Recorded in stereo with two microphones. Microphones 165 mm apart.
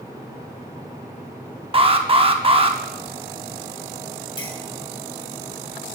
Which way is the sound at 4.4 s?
30° left (ahead or behind).